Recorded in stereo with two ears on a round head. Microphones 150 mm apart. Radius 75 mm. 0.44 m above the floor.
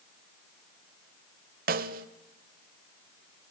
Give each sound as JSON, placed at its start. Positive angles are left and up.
{"t": 1.7, "sound": "a snare drum", "side_deg": -55, "distance_m": 1.0}